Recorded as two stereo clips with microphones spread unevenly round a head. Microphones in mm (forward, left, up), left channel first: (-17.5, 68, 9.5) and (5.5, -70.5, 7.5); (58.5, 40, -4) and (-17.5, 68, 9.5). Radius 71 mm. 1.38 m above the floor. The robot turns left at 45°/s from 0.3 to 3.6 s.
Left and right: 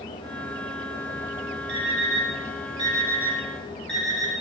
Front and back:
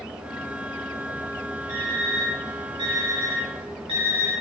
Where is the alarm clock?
90° right, 5 m; by 4.3 s 175° right, 5 m.